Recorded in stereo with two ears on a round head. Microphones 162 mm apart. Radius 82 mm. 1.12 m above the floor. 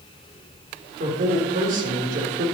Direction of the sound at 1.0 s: 50° right (ahead or behind).